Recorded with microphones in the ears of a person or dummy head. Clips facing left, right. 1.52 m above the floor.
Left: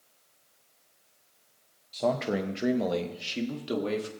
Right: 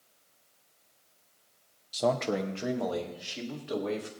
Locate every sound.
1.9 s a man speaking: 15° right (ahead or behind), 0.7 m; by 4.1 s 50° left (ahead or behind), 1.9 m